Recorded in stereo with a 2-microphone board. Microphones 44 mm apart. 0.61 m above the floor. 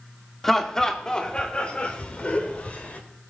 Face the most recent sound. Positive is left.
turn(degrees=35)  # may be behind; listen again after turning